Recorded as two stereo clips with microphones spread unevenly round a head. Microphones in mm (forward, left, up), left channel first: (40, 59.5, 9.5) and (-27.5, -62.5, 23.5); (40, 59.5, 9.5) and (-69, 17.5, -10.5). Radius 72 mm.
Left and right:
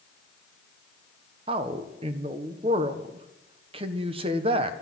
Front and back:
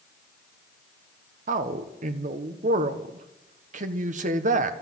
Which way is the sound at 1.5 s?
175° right.